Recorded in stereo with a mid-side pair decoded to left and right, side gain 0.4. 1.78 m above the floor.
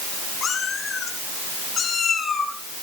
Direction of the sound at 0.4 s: 60° left.